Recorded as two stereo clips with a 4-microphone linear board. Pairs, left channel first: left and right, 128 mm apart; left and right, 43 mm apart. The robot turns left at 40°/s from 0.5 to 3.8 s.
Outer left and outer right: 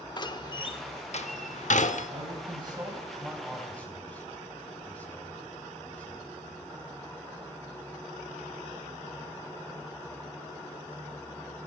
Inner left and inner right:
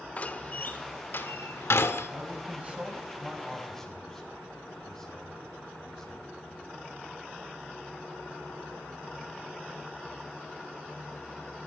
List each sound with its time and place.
0.2 s a door slam: 35° left (ahead or behind), 1.0 m; by 2.1 s 70° left (ahead or behind), 1.0 m
2.1 s a man speaking: 55° right (ahead or behind), 4 m; by 6.6 s 10° left (ahead or behind), 4 m